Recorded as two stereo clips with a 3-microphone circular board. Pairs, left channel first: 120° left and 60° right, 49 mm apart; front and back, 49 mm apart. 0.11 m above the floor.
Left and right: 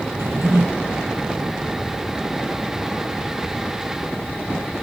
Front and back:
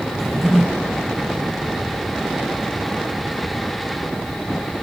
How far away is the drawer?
About 2 m.